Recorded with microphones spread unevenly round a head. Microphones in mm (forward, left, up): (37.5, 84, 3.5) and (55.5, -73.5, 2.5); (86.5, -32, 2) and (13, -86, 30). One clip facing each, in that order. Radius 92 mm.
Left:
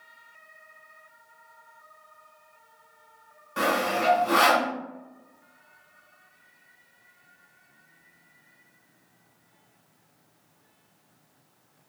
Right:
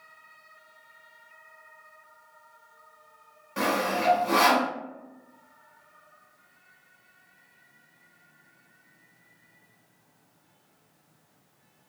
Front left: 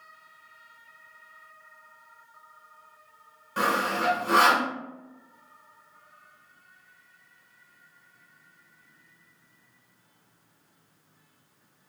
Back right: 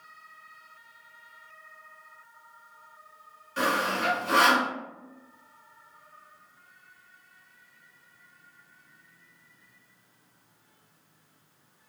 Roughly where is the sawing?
Ahead.